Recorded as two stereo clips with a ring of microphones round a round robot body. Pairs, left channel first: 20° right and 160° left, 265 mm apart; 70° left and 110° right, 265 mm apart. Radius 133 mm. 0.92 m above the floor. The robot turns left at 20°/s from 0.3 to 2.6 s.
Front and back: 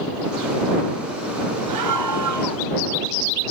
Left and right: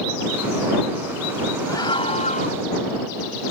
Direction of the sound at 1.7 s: 145° left.